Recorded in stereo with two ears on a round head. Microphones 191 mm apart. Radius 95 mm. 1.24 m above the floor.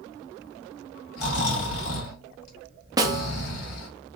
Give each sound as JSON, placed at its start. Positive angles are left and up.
{"t": 1.2, "sound": "snoring", "side_deg": 75, "distance_m": 2.5}
{"t": 3.0, "sound": "a snare drum", "side_deg": -15, "distance_m": 0.7}